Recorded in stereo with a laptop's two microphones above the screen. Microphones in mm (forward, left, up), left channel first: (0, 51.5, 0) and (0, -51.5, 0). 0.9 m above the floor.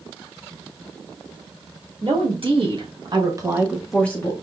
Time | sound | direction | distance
2.0 | a woman speaking | 60° right (ahead or behind) | 1.7 m